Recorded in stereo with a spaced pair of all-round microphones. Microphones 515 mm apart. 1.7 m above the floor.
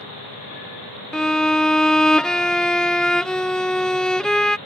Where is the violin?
Centre (ahead or behind).